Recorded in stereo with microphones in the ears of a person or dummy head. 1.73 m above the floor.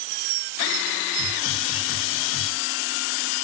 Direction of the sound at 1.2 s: 60° left (ahead or behind).